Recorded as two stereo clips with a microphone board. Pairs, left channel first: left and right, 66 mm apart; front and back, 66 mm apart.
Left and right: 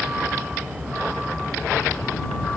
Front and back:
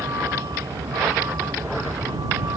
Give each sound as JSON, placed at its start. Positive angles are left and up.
{"t": 0.0, "sound": "a vehicle", "azimuth_deg": -160}